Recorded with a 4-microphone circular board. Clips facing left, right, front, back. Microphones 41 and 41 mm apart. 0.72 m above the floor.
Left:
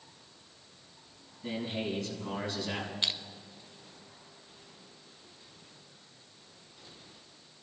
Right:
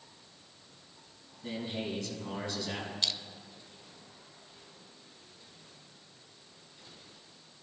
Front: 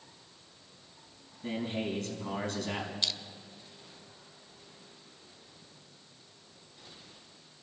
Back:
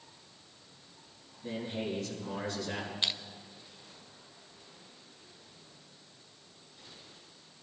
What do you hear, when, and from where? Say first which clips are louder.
1.4 s a man speaking: left 2 dB, front 2 dB; 10° left, 5 m
3.0 s crushing: left 1 dB, back 4 dB; 135° left, 0.5 m